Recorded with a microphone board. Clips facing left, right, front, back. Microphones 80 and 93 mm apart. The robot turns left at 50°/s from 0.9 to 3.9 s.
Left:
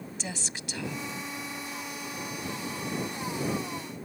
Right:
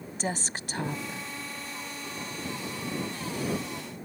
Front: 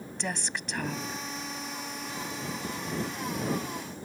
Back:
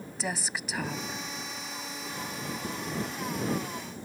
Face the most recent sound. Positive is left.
turn(degrees=115)